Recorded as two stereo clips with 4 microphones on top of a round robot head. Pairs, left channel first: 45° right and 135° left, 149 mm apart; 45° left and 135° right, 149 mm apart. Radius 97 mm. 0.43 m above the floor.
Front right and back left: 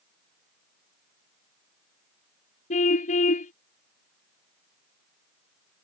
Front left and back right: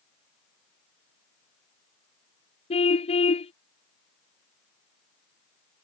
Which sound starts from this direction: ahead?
A car horn, at 2.7 s.